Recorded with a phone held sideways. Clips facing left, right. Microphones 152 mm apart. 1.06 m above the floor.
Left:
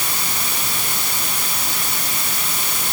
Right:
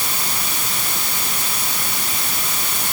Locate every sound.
Only background noise.